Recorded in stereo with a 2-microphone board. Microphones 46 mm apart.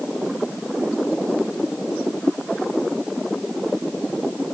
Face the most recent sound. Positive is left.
No sound to turn to.